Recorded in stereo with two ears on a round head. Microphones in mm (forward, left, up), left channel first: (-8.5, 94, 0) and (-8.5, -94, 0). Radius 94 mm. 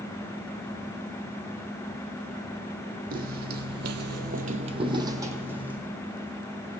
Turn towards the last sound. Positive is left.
turn(degrees=-5)  # may be behind; listen again after turning